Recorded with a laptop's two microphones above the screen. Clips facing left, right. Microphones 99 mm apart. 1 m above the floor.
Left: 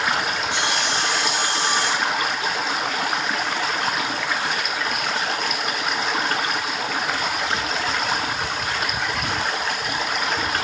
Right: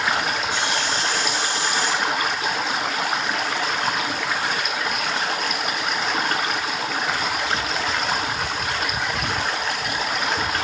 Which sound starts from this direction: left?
Sawing, at 0.5 s.